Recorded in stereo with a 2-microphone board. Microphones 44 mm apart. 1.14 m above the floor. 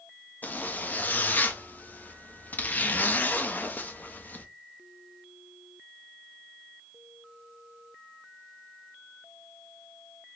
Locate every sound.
0.4 s a zipper: 40° left (ahead or behind), 0.6 m